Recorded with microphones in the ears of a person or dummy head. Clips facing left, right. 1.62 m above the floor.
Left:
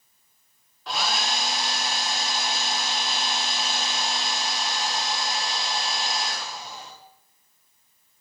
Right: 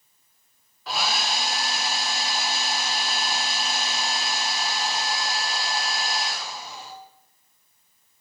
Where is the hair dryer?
5° right (ahead or behind), 1.3 m.